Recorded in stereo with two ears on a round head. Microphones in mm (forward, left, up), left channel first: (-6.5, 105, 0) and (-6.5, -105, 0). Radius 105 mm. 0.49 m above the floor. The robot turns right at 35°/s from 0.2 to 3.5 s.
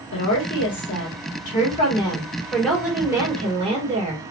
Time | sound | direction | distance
0.1 | a woman speaking | 95° left | 1.7 m